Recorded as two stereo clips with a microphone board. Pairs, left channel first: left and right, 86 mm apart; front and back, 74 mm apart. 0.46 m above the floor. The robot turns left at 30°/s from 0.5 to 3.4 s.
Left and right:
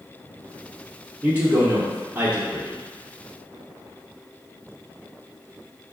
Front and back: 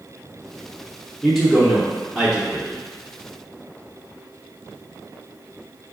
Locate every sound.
1.2 s a man speaking: 75° right, 0.9 m; by 2.8 s 120° right, 0.9 m